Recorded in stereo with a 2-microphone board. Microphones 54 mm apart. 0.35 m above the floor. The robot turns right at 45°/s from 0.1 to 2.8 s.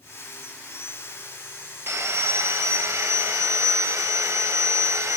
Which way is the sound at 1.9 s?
125° right.